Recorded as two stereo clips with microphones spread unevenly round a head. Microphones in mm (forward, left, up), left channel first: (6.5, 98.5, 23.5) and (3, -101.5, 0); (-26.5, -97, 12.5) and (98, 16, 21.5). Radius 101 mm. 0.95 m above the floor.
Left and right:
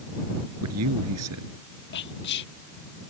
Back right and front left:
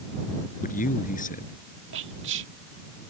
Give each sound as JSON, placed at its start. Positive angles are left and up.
{"t": 0.6, "sound": "a man speaking", "azimuth_deg": -100}
{"t": 1.9, "sound": "whispering", "azimuth_deg": 50}